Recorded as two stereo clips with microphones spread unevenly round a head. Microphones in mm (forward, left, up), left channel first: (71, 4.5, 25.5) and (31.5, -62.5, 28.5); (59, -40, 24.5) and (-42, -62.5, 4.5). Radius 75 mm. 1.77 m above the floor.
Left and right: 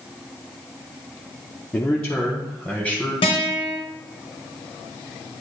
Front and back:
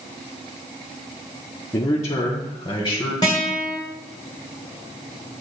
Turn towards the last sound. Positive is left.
turn(degrees=75)